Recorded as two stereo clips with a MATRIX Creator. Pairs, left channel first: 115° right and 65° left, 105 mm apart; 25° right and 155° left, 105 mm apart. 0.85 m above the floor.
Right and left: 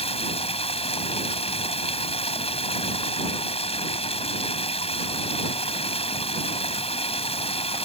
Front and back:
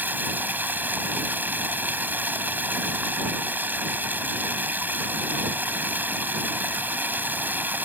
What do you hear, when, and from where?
0.0 s running water: 130° right